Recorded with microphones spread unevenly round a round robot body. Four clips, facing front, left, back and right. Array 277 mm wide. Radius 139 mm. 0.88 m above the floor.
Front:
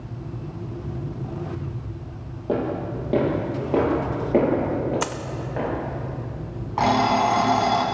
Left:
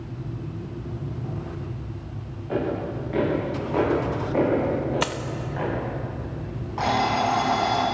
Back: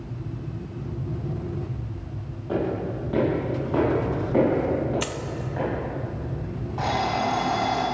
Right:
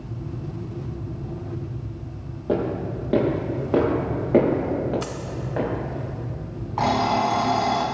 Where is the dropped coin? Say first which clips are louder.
Left 4 dB, front 3 dB; 80° left, 0.9 m.